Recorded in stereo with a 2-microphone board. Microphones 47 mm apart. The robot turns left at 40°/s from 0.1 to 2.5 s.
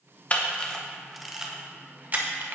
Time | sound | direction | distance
0.3 | a camera shutter | 35° left (ahead or behind) | 0.9 m